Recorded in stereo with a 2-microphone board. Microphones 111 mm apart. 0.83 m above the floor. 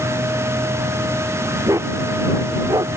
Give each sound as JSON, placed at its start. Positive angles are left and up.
{"t": 1.7, "sound": "a dog barking", "side_deg": -25}